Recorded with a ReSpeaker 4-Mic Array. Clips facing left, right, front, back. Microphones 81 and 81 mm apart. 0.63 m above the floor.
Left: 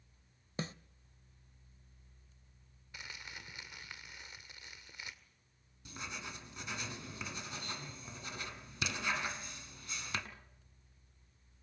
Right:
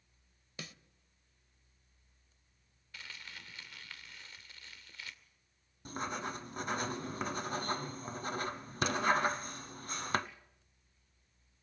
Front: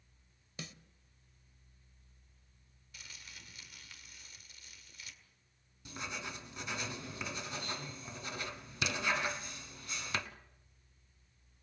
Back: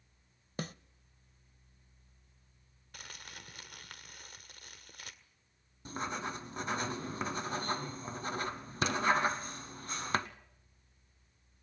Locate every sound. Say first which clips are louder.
0.6 s a snare drum: left 8 dB, back 8 dB; 145° left, 0.6 m
2.9 s crumpling: left 1 dB, back 5 dB; 160° left, 1.8 m
5.8 s writing: right 8 dB, back 6 dB; 135° right, 1.2 m